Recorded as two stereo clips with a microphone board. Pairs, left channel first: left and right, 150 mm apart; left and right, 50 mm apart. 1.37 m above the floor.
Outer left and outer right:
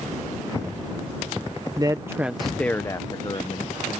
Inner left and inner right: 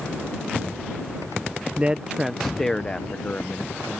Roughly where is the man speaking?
Right.